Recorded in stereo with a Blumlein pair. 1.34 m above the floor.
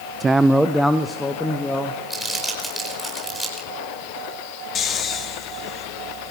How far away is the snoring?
About 2.5 m.